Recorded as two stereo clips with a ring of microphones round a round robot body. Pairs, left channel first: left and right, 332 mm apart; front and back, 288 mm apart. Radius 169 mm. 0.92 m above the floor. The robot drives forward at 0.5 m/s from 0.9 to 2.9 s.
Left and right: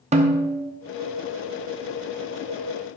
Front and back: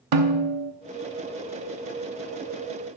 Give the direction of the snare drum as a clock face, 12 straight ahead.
5 o'clock.